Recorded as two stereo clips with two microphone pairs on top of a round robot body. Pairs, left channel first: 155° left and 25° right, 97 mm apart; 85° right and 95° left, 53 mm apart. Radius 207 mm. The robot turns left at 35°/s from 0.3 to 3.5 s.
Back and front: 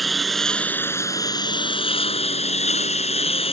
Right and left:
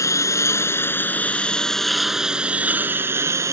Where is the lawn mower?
120° right; by 3.5 s 130° left.